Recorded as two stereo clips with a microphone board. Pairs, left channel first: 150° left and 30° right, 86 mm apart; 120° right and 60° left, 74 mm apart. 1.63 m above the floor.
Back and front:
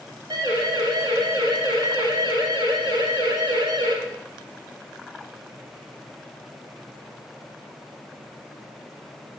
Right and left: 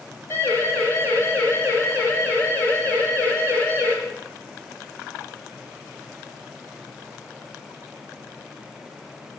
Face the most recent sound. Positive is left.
turn(degrees=-60)